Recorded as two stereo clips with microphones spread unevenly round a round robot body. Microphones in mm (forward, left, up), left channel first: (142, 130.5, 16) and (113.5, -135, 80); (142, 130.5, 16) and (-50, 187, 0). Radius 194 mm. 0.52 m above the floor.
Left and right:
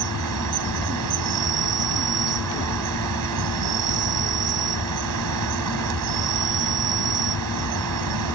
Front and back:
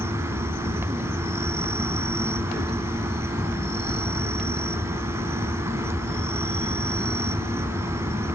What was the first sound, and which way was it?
An insect, 115° right.